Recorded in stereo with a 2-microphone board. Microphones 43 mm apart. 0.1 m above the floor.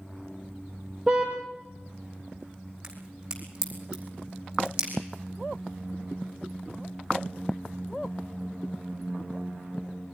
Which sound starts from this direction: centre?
A car horn, at 1.1 s.